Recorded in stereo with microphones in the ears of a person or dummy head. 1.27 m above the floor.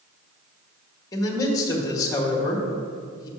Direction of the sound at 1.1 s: 20° left (ahead or behind).